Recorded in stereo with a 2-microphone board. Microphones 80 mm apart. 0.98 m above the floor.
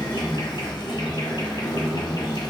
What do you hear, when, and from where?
0.0 s an insect: 70° left (ahead or behind), 1.1 m